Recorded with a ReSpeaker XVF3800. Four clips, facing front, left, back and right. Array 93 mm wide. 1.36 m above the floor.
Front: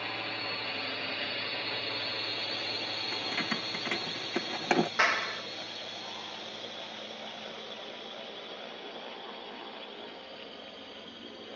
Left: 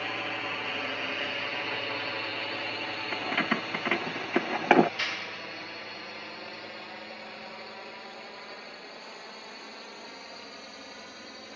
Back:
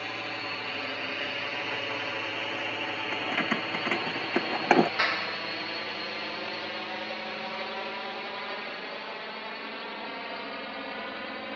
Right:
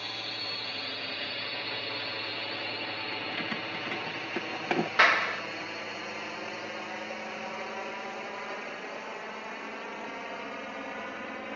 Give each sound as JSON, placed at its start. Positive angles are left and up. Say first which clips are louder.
{"t": 0.0, "sound": "a drone", "louder": "left 6 dB, back 2 dB", "azimuth_deg": 110}
{"t": 3.1, "sound": "keys jangling", "louder": "left 9 dB, back 5 dB", "azimuth_deg": 125}
{"t": 5.0, "sound": "a clap", "louder": "right 11 dB, front 1 dB", "azimuth_deg": -75}